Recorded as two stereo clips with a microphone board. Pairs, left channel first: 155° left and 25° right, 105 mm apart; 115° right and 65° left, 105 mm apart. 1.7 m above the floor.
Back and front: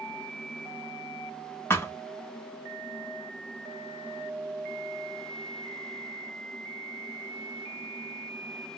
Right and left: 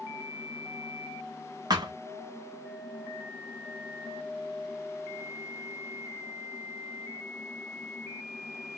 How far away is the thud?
About 1.6 m.